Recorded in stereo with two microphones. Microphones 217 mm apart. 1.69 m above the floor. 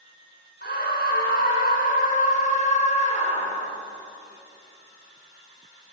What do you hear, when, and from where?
0.6 s a scream: 50° left (ahead or behind), 6 m; by 3.8 s 30° left (ahead or behind), 7 m